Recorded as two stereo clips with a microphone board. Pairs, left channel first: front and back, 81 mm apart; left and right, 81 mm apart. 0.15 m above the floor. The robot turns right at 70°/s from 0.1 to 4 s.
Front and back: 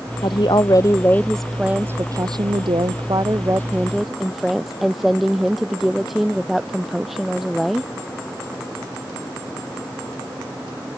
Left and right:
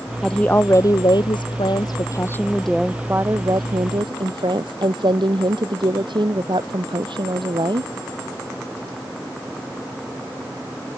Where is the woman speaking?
5° left; by 7.9 s 90° right.